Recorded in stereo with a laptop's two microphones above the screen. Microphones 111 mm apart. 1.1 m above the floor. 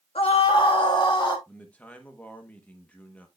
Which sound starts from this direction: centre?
A man speaking, at 1.5 s.